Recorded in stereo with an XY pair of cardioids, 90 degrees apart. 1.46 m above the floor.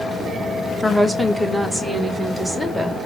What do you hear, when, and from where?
0.8 s a woman speaking: 5° left, 1.1 m; by 3.0 s straight ahead, 2.5 m